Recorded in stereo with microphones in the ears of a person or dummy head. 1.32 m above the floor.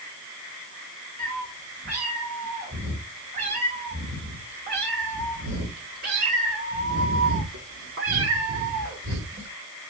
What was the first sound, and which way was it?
A cat meowing, 40° right (ahead or behind).